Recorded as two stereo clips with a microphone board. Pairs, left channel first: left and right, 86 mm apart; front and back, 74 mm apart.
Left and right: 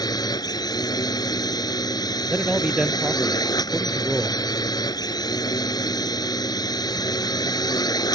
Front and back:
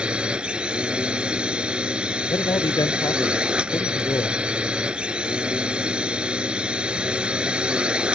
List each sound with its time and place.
0.0 s a drone: 105° left
2.3 s a man speaking: 10° right